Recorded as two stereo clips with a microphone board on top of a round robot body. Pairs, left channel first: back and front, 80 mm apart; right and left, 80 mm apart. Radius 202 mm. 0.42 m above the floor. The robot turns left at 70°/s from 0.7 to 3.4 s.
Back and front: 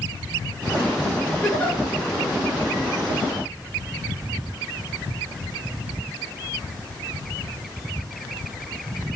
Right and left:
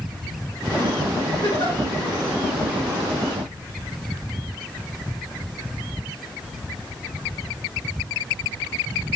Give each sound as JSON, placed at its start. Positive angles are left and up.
{"t": 1.4, "sound": "a giggle", "azimuth_deg": -100, "distance_m": 1.9}